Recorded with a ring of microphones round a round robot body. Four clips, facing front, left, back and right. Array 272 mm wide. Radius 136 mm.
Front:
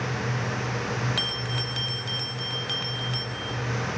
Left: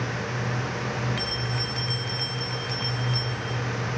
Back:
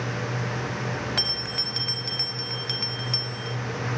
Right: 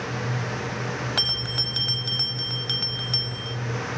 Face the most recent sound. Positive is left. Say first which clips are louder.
# left 2 dB, front 1 dB
turn(degrees=-95)